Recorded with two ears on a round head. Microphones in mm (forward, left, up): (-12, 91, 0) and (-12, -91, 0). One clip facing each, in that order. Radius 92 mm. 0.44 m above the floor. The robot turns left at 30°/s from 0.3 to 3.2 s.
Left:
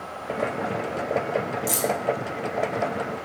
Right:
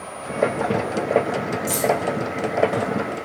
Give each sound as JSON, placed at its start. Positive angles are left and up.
{"t": 1.7, "sound": "keys jangling", "side_deg": 25, "distance_m": 0.6}